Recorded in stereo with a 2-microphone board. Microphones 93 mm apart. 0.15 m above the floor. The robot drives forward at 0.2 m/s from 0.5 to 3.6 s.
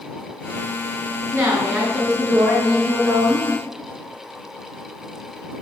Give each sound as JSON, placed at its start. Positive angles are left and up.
{"t": 1.3, "sound": "a woman speaking", "side_deg": -25, "distance_m": 1.6}